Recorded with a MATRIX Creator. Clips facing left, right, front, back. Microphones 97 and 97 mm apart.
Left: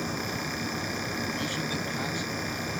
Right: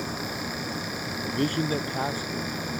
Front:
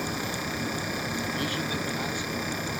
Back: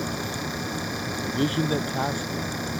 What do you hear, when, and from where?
1.2 s a man speaking: 125° right; by 2.5 s 145° right